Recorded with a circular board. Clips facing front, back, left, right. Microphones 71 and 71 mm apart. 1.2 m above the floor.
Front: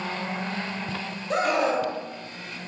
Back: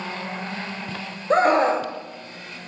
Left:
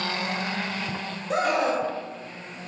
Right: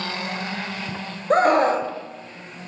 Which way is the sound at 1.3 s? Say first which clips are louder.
Back 6 dB, right 7 dB; 130° right.